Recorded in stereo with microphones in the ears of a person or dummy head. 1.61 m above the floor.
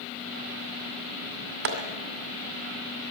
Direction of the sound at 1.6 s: 55° right (ahead or behind).